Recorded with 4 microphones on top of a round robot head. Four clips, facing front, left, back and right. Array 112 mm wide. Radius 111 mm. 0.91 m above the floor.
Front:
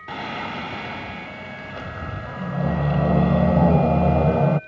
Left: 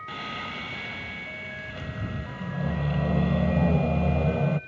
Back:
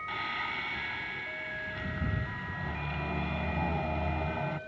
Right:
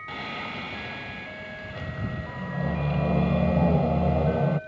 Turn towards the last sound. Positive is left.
turn(degrees=-15)